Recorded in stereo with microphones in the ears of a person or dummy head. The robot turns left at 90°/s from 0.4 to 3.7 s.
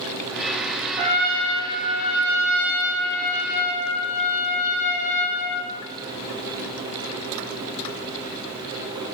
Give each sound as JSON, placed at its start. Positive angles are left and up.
{"t": 1.0, "sound": "a trumpet", "azimuth_deg": -150, "distance_m": 3.0}